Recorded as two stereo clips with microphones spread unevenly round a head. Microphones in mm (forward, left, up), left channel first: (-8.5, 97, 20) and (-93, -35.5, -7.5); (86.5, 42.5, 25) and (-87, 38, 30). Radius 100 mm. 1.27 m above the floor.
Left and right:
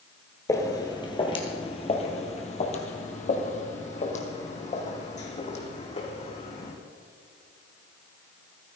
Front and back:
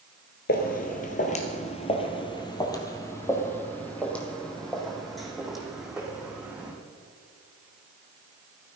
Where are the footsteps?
5° left, 1.7 m; by 6.7 s 100° left, 4 m.